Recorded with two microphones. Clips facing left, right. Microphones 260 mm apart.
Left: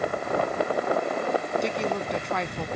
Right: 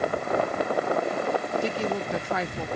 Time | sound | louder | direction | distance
1.6 | a woman speaking | even | centre (ahead or behind) | ?